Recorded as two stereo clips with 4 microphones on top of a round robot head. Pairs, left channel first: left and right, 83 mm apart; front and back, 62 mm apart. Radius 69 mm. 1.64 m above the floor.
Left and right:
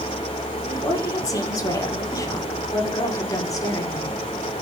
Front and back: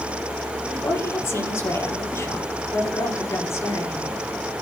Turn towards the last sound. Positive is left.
turn(degrees=45)